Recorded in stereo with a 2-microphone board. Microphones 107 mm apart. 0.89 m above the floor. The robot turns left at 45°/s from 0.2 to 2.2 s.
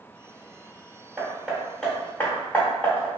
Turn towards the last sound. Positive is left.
turn(degrees=15)  # may be behind; listen again after turning